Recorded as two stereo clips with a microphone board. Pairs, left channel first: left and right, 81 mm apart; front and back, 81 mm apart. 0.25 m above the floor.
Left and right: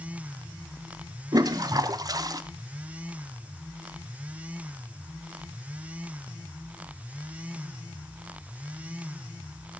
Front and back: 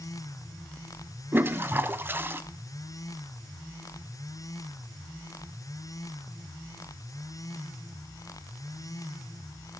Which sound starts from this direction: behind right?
A toilet flushing, at 1.3 s.